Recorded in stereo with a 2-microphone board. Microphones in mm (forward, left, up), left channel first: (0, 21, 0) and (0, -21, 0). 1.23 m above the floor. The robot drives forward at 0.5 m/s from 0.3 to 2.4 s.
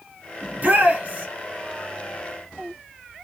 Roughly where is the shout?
Right.